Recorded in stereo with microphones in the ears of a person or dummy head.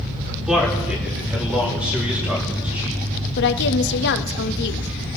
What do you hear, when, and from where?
0.5 s a man speaking: 5° right (ahead or behind), 4 m
3.4 s a woman speaking: 65° left (ahead or behind), 1.2 m